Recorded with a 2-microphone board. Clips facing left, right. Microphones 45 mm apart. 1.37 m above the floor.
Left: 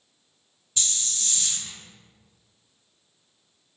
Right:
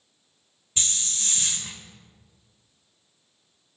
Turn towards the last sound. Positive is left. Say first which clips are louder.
# right 1 dB
turn(degrees=-35)  # may be behind; listen again after turning